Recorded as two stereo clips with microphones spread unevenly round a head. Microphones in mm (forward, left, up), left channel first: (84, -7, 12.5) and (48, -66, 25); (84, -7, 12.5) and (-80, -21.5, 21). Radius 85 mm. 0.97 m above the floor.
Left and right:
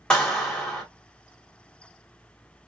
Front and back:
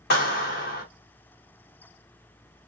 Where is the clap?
20° right, 1.4 m.